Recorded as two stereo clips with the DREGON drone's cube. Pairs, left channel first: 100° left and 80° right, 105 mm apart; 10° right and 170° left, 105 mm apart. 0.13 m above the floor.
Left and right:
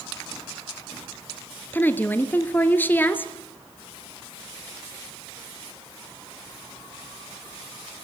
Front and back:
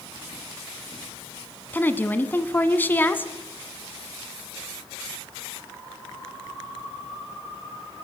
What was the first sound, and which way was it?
A woman speaking, 45° left.